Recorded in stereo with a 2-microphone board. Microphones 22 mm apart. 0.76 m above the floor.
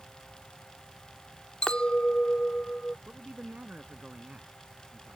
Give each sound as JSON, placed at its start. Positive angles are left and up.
{"t": 1.6, "sound": "a clink", "side_deg": 55}
{"t": 3.1, "sound": "a man speaking", "side_deg": -85}